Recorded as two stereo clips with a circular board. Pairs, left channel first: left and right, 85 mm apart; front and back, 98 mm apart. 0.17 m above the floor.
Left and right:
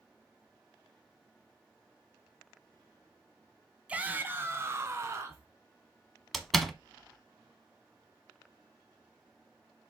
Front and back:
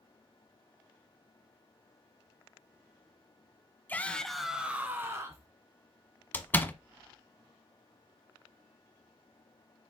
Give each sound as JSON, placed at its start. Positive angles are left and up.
{"t": 3.9, "sound": "a shout", "azimuth_deg": -40, "distance_m": 1.2}
{"t": 6.3, "sound": "a door slam", "azimuth_deg": 5, "distance_m": 0.9}